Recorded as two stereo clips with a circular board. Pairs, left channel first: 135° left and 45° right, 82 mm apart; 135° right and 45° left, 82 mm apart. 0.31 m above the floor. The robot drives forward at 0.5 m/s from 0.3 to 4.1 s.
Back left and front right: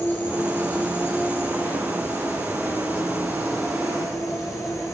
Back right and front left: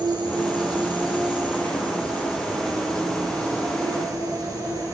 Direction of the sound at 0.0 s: 70° left.